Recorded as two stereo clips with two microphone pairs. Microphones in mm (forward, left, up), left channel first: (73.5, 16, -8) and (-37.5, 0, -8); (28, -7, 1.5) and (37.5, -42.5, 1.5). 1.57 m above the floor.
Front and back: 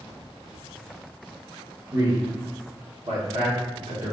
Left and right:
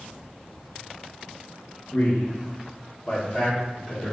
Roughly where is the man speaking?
Behind left.